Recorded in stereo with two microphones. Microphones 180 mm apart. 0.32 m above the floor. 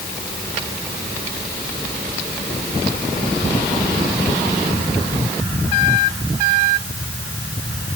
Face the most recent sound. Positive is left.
No sound to turn to.